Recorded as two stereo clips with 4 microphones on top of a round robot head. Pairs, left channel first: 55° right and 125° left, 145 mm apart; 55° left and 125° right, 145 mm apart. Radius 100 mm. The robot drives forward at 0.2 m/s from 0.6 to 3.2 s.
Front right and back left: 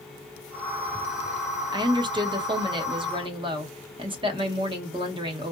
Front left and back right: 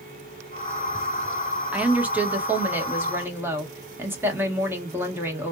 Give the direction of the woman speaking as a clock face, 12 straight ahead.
7 o'clock.